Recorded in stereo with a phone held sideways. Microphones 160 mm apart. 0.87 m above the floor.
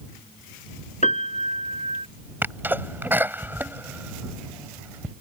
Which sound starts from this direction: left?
A piano, at 1.0 s.